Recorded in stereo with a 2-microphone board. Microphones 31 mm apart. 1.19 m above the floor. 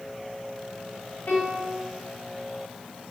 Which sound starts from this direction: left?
A piano, at 1.3 s.